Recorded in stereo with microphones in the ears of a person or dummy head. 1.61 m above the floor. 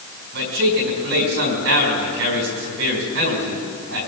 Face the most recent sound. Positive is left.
turn(degrees=-65)  # may be behind; listen again after turning